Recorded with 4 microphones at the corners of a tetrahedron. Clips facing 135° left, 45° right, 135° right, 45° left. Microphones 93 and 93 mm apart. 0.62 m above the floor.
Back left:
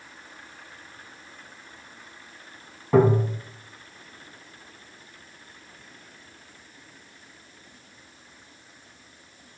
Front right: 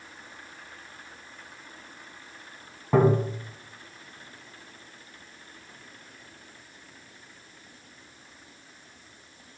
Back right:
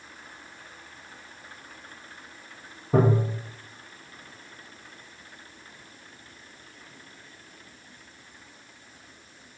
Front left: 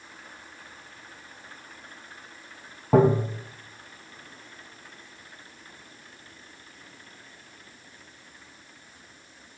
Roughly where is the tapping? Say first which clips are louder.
Back left 2 dB, front left 3 dB; ahead left.